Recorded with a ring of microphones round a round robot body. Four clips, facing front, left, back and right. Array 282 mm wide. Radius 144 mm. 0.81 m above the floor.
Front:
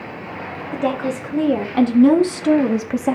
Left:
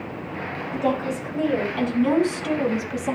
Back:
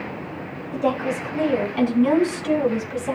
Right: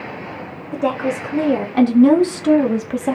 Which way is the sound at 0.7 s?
55° right.